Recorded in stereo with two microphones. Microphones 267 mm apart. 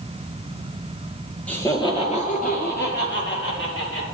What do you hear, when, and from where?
1.5 s laughter: 5° left (ahead or behind), 2.5 m; by 4.0 s 50° left (ahead or behind), 5 m